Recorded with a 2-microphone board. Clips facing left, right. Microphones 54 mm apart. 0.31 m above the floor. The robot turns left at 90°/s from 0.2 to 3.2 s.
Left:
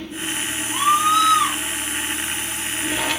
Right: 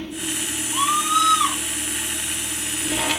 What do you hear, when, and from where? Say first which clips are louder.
0.7 s a scream: left 3 dB; 90° left, 4.5 m; by 1.6 s 10° left, 4.5 m